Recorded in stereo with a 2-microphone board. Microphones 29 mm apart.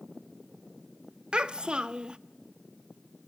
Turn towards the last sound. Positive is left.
turn(degrees=-30)  # may be behind; listen again after turning